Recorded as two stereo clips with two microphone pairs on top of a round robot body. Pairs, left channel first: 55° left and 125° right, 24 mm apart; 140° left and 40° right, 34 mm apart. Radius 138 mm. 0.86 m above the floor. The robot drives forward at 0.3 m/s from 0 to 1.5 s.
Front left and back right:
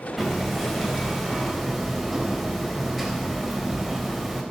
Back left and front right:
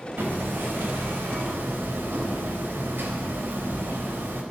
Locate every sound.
0.2 s hammering: 35° right, 4 m